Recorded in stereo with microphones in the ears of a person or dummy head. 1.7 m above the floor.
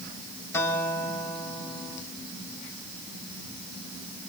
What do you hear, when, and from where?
0.5 s a guitar: 10° left (ahead or behind), 4.5 m